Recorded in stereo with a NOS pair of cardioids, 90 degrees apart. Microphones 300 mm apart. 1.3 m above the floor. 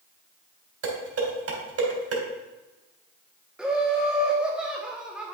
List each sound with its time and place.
0.8 s dishes clattering: 50° right, 3 m
3.6 s laughter: 5° right, 1.0 m